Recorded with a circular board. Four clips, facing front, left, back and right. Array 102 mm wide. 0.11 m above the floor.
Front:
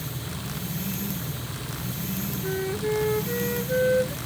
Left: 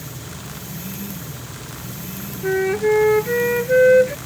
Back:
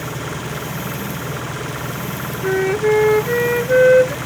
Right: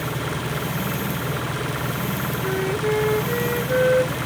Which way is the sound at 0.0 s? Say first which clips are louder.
Right 9 dB, back 9 dB; 140° right.